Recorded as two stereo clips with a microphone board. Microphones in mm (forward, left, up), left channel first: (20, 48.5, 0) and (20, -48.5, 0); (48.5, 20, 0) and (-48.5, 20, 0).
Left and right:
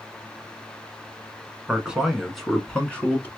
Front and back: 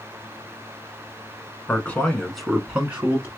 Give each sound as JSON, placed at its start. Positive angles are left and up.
{"t": 1.7, "sound": "a man speaking", "azimuth_deg": -35, "distance_m": 1.1}